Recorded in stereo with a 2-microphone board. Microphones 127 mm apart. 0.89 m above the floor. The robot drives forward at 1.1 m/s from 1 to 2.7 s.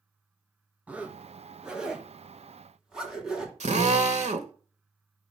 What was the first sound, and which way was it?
A zipper, 10° right (ahead or behind).